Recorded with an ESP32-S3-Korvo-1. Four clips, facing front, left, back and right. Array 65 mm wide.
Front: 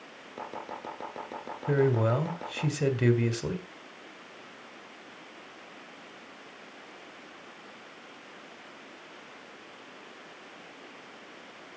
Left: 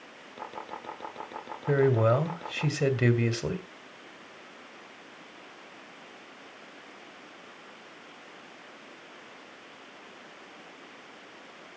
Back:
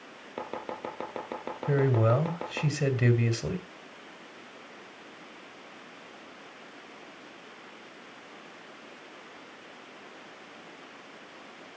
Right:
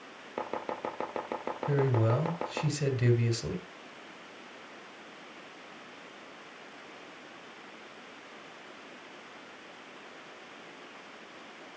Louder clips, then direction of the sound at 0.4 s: Right 5 dB, back 3 dB; 110° right.